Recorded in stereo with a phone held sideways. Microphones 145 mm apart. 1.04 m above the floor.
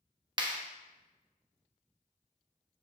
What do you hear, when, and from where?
0.4 s a clap: 30° right (ahead or behind), 1.2 m